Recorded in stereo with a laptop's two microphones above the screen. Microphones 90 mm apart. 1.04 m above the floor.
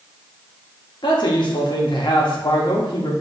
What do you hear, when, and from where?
1.0 s a man speaking: 55° left (ahead or behind), 1.2 m